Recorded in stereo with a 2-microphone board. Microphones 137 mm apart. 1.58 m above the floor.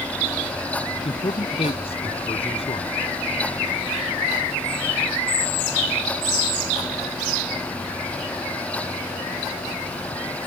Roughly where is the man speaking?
Left.